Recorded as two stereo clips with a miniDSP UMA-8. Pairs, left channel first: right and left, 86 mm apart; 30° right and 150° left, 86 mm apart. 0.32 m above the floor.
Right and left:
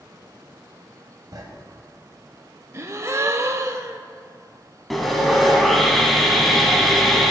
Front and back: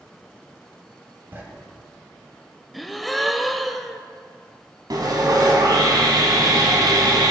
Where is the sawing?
Straight behind, 1.4 m.